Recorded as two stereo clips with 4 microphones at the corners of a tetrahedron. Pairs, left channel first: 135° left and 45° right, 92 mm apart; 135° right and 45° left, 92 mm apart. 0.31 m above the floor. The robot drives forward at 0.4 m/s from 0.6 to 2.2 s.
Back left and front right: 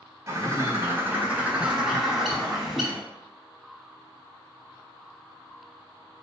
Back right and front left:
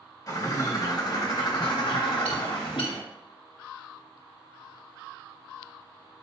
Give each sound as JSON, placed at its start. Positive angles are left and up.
{"t": 0.3, "sound": "a bird", "azimuth_deg": -90, "distance_m": 0.9}